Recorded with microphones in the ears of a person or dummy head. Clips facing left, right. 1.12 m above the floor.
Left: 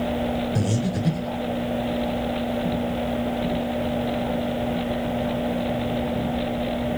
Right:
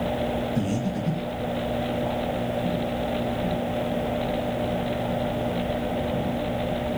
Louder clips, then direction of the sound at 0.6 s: Left 1 dB; 70° left (ahead or behind).